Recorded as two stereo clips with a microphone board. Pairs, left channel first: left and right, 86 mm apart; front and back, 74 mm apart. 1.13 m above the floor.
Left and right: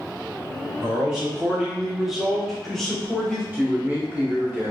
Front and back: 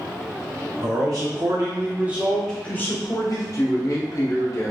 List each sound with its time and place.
0.8 s a man speaking: 170° right, 1.3 m; by 3.4 s 10° left, 1.0 m
3.5 s a man speaking: 25° right, 1.1 m